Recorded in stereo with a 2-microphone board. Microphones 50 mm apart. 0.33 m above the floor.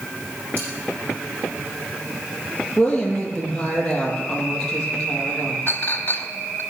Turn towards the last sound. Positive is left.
turn(degrees=50)  # may be behind; listen again after turning